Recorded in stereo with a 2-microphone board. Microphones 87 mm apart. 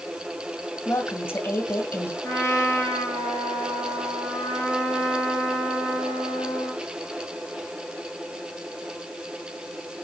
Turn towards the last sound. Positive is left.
turn(degrees=30)  # may be behind; listen again after turning